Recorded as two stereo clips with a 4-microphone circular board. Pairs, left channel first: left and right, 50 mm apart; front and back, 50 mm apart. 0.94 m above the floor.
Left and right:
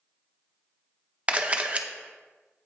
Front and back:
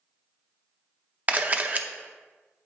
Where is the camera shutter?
140° right, 0.6 m.